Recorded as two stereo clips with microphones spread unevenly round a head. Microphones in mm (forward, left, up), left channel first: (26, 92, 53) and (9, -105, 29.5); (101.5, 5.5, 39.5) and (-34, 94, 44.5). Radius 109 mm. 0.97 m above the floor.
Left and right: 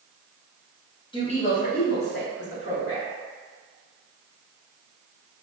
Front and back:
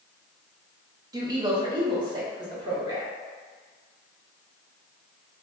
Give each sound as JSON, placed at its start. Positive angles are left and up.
{"t": 1.1, "sound": "a woman speaking", "azimuth_deg": 125, "distance_m": 0.6}